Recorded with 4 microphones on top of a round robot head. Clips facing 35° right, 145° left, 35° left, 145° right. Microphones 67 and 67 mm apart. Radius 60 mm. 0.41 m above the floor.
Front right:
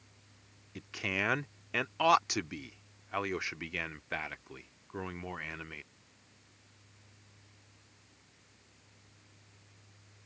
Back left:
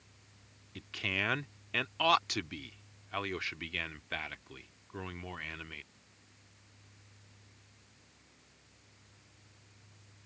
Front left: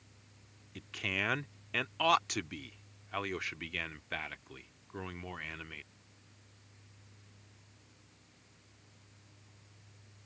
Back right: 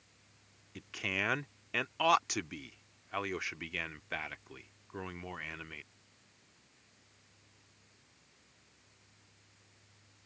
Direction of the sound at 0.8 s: 70° right.